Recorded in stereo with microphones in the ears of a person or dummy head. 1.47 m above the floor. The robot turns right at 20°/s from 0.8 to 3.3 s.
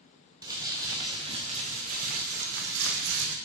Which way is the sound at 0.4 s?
160° right.